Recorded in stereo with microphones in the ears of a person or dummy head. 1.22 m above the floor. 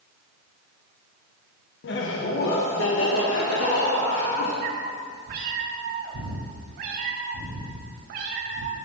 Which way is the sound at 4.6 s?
50° right (ahead or behind).